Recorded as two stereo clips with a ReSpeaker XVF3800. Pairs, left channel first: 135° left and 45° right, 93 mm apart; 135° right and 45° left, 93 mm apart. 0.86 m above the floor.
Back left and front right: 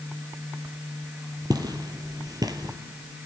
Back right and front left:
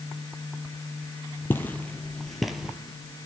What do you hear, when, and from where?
1.5 s footsteps: 75° right, 1.3 m; by 2.8 s 30° right, 1.1 m